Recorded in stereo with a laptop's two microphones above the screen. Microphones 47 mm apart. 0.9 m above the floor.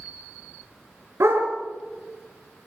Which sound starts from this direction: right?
A dog barking, at 1.2 s.